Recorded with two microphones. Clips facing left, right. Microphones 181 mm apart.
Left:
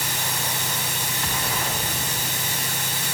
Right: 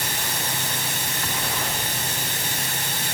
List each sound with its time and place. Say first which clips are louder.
0.0 s running water: even; 55° right (ahead or behind), 7.5 m